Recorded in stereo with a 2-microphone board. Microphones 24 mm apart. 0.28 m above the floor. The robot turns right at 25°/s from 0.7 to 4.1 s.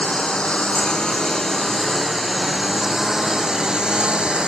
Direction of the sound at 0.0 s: 145° left.